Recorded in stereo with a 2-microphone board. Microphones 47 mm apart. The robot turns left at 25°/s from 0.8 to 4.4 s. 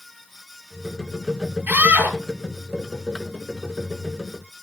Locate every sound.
1.7 s a scream: 40° right (ahead or behind), 9 m; by 2.2 s 50° right (ahead or behind), 9 m